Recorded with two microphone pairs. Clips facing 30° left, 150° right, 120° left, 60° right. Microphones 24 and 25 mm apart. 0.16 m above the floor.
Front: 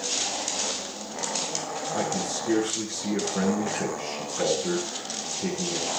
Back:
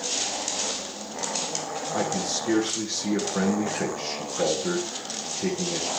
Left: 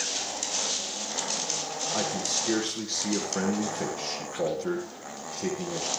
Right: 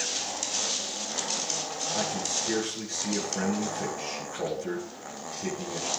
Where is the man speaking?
160° left, 6.5 m.